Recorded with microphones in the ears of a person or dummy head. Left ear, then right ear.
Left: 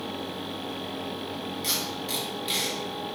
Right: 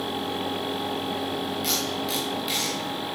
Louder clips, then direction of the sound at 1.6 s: Right 1 dB; 5° right (ahead or behind).